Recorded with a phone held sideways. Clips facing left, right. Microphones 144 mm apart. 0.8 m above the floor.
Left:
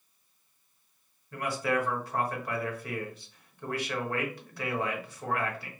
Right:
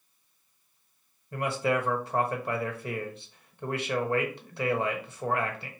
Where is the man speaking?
25° right (ahead or behind), 0.9 m.